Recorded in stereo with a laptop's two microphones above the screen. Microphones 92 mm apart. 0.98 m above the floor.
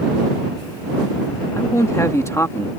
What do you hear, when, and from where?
1.5 s a man speaking: 35° left (ahead or behind)